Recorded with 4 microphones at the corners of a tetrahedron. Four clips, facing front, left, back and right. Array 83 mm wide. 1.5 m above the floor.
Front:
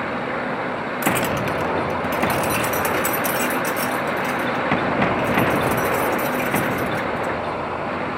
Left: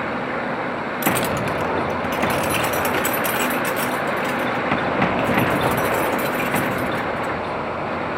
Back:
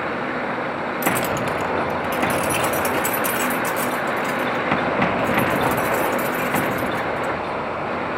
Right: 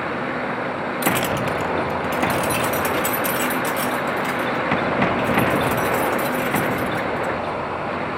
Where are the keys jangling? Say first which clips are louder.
Even, front 1 dB; 15° right, 0.7 m; by 7.3 s 70° left, 8.5 m.